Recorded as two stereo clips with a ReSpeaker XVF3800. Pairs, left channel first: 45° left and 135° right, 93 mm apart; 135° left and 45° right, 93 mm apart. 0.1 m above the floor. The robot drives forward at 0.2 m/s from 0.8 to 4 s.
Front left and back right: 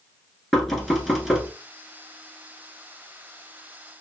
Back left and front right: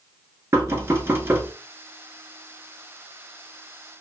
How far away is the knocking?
About 0.8 m.